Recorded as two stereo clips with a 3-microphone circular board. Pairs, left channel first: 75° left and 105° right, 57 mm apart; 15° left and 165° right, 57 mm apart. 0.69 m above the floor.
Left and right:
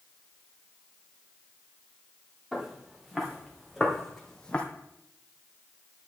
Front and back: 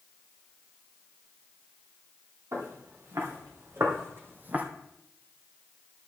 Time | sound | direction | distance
2.5 | footsteps | 175° left | 3.5 m